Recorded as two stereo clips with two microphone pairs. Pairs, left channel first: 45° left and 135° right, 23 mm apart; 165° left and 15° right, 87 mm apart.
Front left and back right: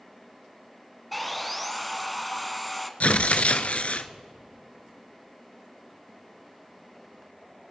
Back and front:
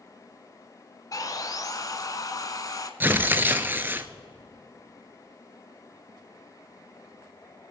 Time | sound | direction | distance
1.1 | sawing | 140° left | 0.7 m
3.0 | tearing paper | 50° left | 0.6 m